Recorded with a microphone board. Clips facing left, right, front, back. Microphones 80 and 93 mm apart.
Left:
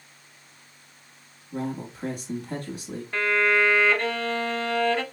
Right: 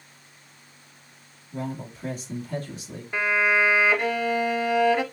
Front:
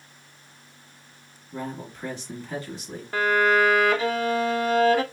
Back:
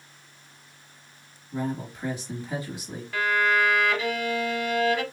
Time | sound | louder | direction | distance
1.5 | a man speaking | left 2 dB, back 3 dB | 105° left | 3 m
3.1 | a violin | even, front 3 dB | 20° right | 0.6 m